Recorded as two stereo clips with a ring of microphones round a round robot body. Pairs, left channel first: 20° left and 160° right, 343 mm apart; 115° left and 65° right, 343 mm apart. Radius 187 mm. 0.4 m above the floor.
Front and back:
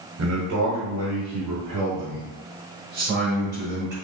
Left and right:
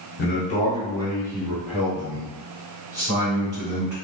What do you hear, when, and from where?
0.2 s a man speaking: 170° left, 1.2 m; by 4.0 s 140° right, 2.5 m